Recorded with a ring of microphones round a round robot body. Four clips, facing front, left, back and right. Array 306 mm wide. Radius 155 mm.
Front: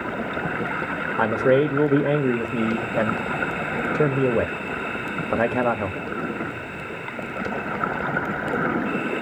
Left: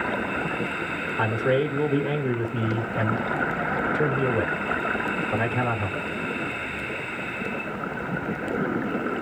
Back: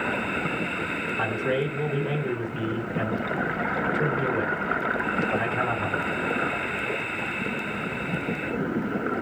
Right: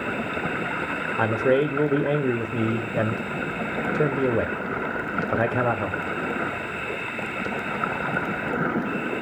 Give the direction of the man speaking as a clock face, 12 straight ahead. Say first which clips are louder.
Right 2 dB, front 9 dB; 1 o'clock.